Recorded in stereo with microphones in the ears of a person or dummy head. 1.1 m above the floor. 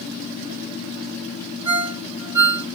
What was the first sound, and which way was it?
A ringtone, 15° right (ahead or behind).